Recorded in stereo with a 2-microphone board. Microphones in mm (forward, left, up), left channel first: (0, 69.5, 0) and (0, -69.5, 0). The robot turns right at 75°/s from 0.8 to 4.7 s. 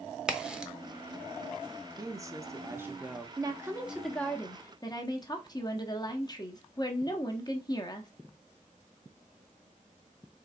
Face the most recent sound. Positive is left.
turn(degrees=50)